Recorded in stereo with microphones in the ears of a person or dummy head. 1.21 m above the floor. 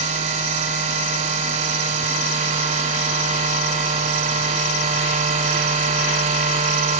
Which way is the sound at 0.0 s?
40° right (ahead or behind).